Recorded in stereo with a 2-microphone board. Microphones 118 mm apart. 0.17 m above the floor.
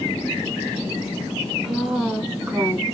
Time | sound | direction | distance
1.6 | a woman speaking | centre (ahead or behind) | 1.7 m